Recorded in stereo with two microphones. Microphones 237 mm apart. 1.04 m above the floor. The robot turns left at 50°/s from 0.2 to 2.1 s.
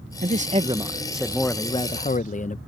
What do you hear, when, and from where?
0.2 s a man speaking: 130° right; by 2.6 s 135° left